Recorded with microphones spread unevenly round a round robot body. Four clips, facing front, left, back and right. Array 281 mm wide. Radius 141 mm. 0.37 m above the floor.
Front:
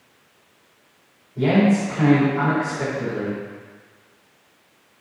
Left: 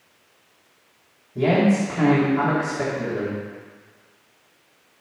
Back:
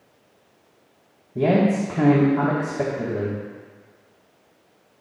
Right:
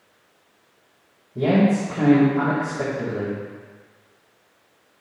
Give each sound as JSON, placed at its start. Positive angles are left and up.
{"t": 1.4, "sound": "a man speaking", "azimuth_deg": -175, "distance_m": 2.5}